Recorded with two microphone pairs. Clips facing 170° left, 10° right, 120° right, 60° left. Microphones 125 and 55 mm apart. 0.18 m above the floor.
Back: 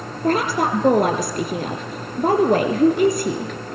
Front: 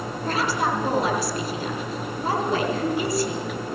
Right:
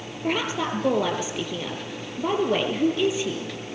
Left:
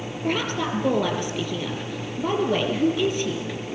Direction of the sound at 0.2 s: 150° left.